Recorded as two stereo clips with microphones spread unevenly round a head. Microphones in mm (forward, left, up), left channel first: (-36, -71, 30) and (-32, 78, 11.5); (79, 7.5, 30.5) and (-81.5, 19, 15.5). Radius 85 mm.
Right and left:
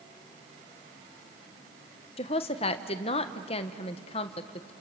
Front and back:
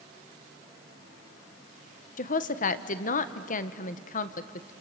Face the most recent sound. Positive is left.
turn(degrees=-40)